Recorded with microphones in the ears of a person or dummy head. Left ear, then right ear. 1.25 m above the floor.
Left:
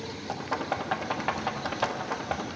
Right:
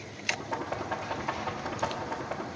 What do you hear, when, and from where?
0.3 s knocking: 50° left (ahead or behind), 0.8 m